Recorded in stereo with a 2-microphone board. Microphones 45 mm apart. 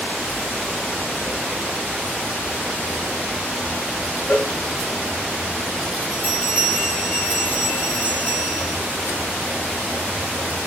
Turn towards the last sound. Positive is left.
turn(degrees=40)  # may be behind; listen again after turning